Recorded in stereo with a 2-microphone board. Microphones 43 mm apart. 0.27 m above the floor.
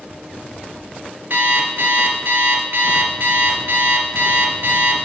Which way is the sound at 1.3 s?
60° right (ahead or behind).